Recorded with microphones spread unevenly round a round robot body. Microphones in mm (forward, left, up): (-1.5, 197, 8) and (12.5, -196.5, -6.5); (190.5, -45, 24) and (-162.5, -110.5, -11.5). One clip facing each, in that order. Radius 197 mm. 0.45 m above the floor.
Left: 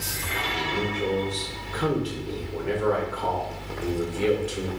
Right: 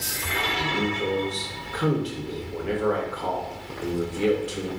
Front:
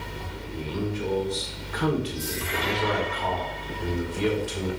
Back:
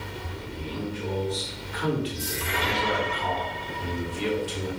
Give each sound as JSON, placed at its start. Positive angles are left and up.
{"t": 0.5, "sound": "a man speaking", "azimuth_deg": 0, "distance_m": 1.8}